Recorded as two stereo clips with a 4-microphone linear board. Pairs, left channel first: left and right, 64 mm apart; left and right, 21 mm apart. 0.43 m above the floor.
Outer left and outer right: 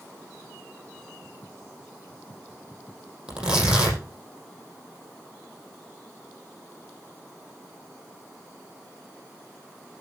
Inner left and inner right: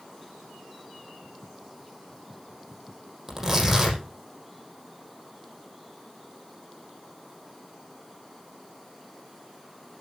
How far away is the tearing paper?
About 6.5 m.